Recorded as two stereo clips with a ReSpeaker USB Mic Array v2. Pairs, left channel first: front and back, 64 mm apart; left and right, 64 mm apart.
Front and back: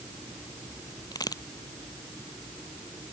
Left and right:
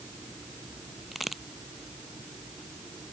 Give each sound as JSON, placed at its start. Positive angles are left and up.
{"t": 1.1, "sound": "a crack", "azimuth_deg": 0}